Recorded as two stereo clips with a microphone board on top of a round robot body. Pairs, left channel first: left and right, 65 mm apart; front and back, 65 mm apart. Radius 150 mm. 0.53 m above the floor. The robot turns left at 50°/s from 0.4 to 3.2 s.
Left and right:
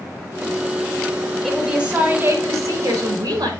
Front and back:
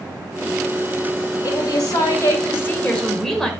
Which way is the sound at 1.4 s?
5° left.